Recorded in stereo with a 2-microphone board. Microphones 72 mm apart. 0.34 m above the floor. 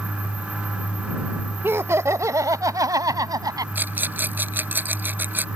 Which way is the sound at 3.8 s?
25° right (ahead or behind).